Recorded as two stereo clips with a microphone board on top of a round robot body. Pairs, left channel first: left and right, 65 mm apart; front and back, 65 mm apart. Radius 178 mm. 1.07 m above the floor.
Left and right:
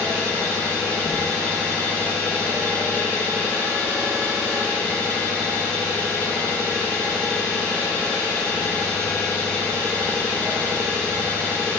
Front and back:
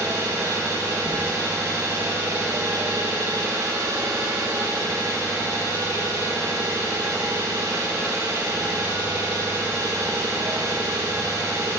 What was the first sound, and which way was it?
An engine running, 155° left.